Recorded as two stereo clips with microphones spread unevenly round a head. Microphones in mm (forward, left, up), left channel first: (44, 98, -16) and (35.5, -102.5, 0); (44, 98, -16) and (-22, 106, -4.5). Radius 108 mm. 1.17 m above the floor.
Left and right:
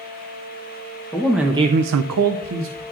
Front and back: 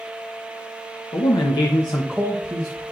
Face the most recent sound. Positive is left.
turn(degrees=-130)